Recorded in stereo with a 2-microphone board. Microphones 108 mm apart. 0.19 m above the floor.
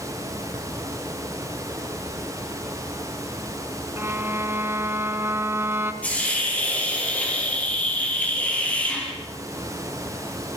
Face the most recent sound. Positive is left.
turn(degrees=15)  # may be behind; listen again after turning